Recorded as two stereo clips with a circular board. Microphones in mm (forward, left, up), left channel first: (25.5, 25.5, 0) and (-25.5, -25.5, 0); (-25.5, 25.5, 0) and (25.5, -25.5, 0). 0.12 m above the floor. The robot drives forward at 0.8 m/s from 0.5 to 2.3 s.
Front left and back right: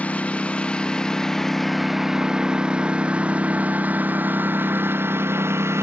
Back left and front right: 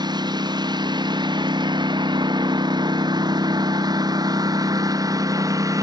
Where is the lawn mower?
25° right; by 5.8 s 85° right.